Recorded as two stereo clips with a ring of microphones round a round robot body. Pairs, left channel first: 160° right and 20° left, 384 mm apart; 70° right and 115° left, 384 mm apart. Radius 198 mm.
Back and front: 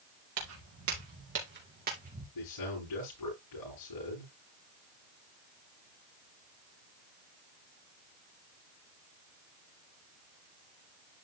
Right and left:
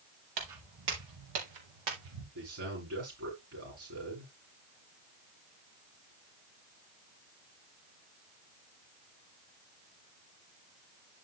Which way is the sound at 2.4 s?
165° left.